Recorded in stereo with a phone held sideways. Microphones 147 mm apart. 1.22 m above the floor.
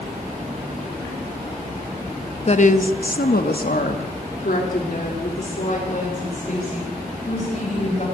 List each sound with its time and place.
2.5 s a woman speaking: 45° left (ahead or behind), 1.3 m